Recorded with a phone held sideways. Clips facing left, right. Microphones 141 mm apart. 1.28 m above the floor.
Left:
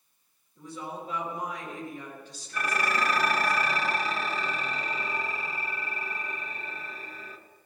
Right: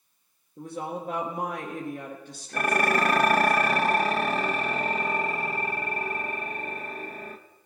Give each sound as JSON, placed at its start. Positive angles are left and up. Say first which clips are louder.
{"t": 0.6, "sound": "a woman speaking", "louder": "right 5 dB", "side_deg": -50, "distance_m": 1.3}
{"t": 2.5, "sound": "dishes clattering", "louder": "right 5 dB", "side_deg": -55, "distance_m": 0.8}